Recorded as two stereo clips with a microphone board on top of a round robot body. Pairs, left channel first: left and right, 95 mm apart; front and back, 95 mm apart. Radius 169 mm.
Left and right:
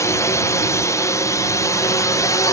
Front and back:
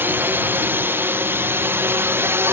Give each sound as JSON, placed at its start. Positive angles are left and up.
{"t": 0.0, "sound": "a drone", "azimuth_deg": 125}